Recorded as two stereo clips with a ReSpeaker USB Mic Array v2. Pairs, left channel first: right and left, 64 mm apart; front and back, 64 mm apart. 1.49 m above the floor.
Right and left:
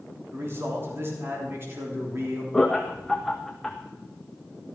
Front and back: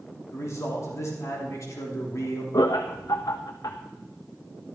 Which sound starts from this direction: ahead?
Laughter, at 2.5 s.